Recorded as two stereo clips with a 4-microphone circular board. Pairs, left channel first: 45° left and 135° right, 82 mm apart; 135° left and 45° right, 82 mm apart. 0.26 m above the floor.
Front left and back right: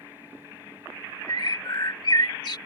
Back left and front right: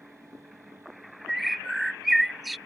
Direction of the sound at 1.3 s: 45° left.